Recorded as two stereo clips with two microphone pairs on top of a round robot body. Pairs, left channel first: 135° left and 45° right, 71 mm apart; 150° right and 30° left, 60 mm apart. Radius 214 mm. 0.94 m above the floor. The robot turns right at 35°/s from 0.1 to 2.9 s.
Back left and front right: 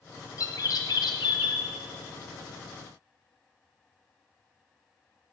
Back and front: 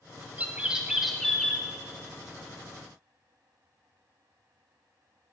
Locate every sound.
0.4 s a bird: 95° left, 1.1 m; by 1.6 s 140° left, 1.1 m